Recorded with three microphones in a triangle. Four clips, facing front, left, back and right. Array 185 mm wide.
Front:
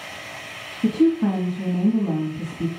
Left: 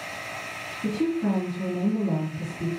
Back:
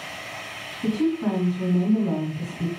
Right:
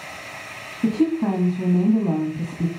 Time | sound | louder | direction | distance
0.8 | a woman speaking | right 5 dB, front 5 dB | 80° right | 2 m